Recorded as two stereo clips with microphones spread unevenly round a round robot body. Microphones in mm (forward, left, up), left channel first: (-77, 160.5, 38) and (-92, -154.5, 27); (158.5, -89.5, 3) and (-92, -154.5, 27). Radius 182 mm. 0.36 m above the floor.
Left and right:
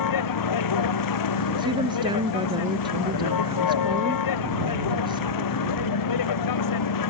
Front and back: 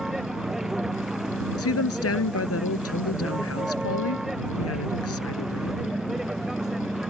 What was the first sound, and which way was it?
A vehicle, 105° left.